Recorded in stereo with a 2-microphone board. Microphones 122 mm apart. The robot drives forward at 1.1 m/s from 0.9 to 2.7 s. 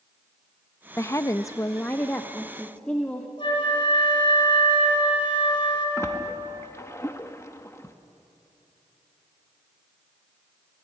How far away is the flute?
About 5 m.